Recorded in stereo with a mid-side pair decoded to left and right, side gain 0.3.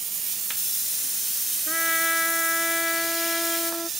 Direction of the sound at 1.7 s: 25° left.